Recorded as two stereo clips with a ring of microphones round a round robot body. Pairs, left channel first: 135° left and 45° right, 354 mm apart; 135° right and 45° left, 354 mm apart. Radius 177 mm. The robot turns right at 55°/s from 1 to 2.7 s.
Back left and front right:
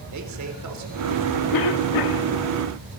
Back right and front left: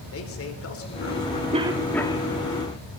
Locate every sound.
0.1 s a man speaking: 85° right, 3.5 m; by 1.4 s 60° right, 3.5 m
1.5 s a cough: 115° left, 1.9 m; by 2.3 s 160° left, 1.9 m